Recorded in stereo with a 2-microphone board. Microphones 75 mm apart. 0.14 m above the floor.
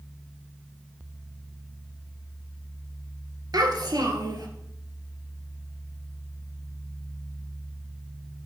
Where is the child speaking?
60° right (ahead or behind), 2 m.